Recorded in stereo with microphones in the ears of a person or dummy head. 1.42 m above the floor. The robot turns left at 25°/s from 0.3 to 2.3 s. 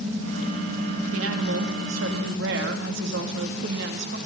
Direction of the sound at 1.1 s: 80° right.